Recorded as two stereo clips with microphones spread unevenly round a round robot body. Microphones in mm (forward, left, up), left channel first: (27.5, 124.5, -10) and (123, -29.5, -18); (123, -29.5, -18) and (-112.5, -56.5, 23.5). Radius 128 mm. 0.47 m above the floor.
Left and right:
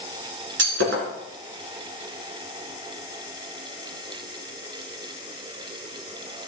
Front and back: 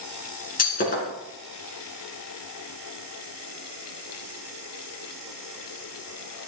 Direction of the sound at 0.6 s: 50° right.